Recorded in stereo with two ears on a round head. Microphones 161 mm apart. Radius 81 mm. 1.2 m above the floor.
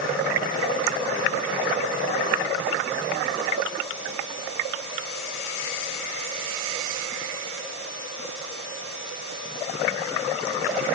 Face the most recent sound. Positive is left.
No sound to turn to.